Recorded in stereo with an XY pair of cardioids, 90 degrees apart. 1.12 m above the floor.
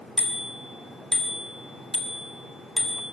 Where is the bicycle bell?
15° left, 3 m.